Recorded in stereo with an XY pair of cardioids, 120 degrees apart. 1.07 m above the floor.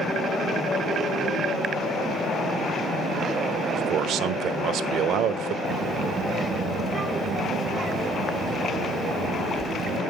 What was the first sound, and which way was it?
A man speaking, 70° right.